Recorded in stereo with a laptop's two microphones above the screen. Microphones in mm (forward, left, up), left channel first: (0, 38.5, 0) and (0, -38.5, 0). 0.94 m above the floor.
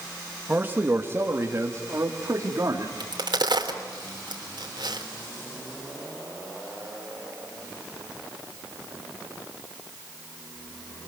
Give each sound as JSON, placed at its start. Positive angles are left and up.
{"t": 0.5, "sound": "a man speaking", "side_deg": -20, "distance_m": 1.5}
{"t": 3.0, "sound": "a crack", "side_deg": -75, "distance_m": 3.0}